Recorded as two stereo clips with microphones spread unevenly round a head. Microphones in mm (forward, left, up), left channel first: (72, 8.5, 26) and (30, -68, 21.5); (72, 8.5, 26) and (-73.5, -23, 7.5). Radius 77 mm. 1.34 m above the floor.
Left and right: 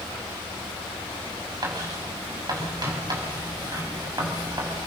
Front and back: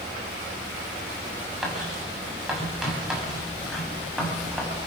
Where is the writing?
80° right, 7.5 m.